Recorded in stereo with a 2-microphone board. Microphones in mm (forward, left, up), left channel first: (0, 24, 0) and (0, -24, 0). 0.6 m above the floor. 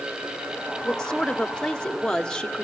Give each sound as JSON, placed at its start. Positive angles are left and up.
{"t": 0.8, "sound": "a woman speaking", "side_deg": 15, "distance_m": 1.3}